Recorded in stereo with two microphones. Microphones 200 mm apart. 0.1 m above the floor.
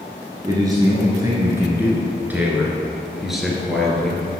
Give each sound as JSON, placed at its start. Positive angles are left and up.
{"t": 0.4, "sound": "a man speaking", "side_deg": -20, "distance_m": 1.9}